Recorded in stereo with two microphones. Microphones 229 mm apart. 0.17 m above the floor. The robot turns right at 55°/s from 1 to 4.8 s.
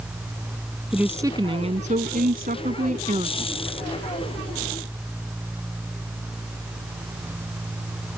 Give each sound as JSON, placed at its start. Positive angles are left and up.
{"t": 0.9, "sound": "a woman speaking", "azimuth_deg": -170}